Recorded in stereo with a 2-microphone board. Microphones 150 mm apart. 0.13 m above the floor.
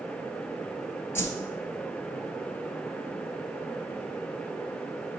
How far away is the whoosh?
About 0.8 m.